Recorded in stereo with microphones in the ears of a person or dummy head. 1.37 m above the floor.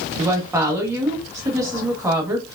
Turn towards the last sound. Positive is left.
turn(degrees=-25)  # may be behind; listen again after turning